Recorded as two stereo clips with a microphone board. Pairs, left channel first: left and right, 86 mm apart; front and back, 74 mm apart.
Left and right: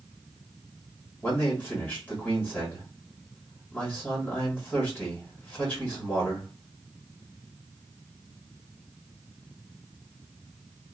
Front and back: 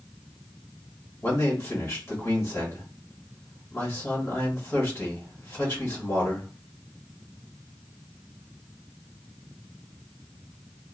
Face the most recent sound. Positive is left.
turn(degrees=30)